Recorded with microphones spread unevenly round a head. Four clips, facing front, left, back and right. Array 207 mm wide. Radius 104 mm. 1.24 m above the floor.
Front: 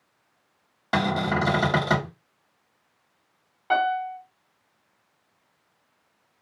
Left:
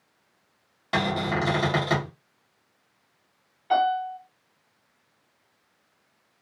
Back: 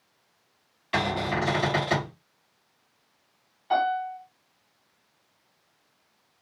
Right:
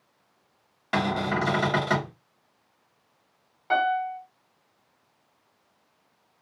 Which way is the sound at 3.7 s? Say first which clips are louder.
Left 1 dB, front 1 dB; 20° right.